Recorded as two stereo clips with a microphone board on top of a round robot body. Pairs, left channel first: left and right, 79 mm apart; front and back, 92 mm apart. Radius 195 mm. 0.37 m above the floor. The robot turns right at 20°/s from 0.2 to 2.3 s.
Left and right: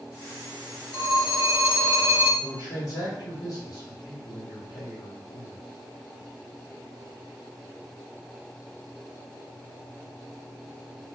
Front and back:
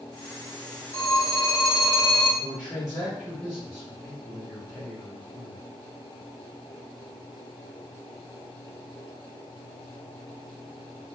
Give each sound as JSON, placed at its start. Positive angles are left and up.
{"t": 0.9, "sound": "a phone ringing", "azimuth_deg": 60, "distance_m": 1.7}
{"t": 2.4, "sound": "a man speaking", "azimuth_deg": 95, "distance_m": 1.8}